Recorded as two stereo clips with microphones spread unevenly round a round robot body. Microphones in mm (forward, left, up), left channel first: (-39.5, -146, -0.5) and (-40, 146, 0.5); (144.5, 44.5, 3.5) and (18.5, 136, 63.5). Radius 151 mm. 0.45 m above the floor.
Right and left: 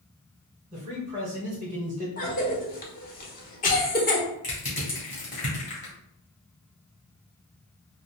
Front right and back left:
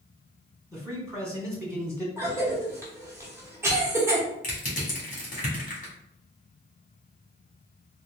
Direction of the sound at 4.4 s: 25° right.